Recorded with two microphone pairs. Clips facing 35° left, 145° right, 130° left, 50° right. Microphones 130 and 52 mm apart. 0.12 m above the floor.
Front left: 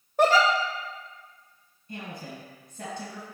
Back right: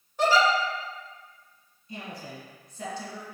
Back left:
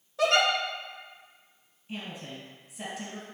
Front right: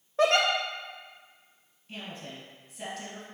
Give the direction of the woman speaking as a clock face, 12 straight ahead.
10 o'clock.